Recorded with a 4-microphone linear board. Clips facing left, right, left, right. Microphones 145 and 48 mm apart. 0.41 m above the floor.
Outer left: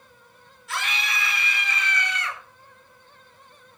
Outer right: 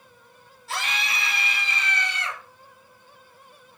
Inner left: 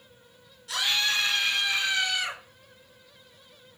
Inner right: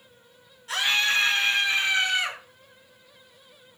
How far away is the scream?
About 8 m.